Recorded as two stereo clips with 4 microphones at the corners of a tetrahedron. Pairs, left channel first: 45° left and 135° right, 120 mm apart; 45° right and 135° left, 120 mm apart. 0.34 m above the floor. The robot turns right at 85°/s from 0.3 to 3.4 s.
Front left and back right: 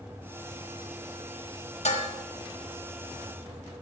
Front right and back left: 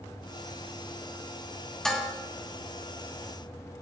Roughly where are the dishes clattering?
Ahead left.